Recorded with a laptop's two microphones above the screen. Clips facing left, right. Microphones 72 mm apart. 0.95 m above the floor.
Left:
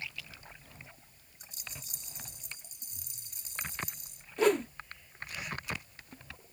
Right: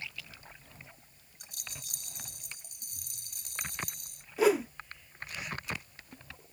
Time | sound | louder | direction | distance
1.4 | a rattle | even | 60° right (ahead or behind) | ?
4.4 | a whoosh | right 1 dB | 5° right (ahead or behind) | ?